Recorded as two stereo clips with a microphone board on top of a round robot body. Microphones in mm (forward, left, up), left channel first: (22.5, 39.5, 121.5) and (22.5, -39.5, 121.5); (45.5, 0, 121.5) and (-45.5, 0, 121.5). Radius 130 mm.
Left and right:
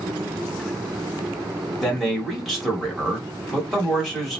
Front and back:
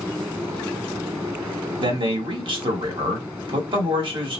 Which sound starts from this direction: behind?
A man speaking, at 1.8 s.